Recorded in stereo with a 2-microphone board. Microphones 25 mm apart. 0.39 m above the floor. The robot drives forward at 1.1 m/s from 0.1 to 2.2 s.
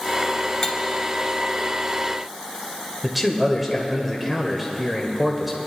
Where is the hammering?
I don't hear hammering.